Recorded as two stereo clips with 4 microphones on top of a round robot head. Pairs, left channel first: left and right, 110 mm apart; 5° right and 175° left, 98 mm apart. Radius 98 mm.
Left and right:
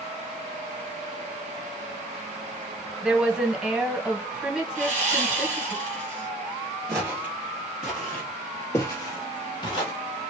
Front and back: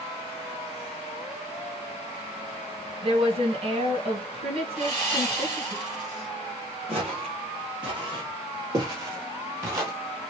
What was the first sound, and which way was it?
A woman speaking, 170° right.